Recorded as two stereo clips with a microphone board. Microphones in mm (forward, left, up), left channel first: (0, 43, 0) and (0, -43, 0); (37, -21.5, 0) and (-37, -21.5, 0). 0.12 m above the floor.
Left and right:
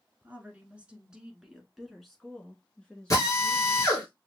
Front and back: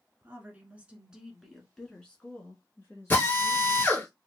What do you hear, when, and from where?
0.2 s a woman speaking: 145° right, 1.4 m; by 4.1 s 25° left, 1.7 m
3.1 s a drill: 55° left, 2 m